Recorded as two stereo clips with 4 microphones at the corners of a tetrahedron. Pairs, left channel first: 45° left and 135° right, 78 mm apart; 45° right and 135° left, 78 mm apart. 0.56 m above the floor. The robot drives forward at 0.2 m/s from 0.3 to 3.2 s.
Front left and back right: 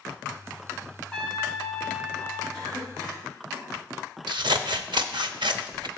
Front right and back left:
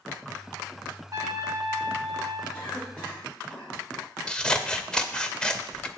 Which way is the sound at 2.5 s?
120° right.